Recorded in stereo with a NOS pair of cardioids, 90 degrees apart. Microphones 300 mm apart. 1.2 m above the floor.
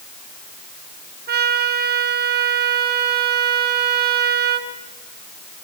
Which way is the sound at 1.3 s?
35° right.